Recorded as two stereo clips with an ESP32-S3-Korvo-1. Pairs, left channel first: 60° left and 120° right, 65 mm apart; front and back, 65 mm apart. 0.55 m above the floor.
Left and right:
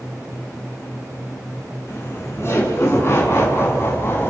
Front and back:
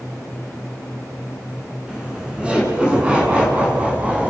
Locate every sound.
1.9 s laughter: 105° left, 7.5 m; by 4.3 s 110° left, 5.5 m